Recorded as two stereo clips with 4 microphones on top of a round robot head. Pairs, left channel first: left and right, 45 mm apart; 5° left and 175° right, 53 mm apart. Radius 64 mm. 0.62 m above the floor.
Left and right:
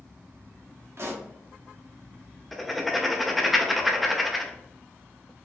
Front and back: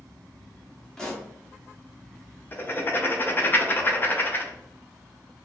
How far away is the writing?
About 0.9 m.